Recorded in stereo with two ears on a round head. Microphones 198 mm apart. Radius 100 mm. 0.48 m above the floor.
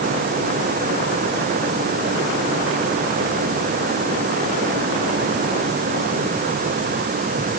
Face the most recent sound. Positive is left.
No sound to turn to.